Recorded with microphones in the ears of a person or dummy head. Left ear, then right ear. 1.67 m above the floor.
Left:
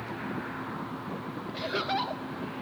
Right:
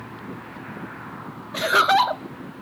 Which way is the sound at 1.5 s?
45° right (ahead or behind).